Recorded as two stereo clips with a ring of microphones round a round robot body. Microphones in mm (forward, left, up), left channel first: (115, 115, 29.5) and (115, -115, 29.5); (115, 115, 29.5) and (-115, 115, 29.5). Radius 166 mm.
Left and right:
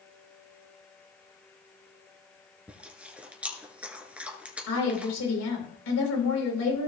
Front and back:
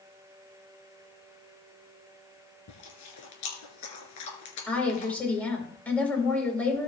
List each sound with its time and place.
2.7 s chewing: 5° right, 2 m
4.7 s a woman speaking: 85° left, 3.5 m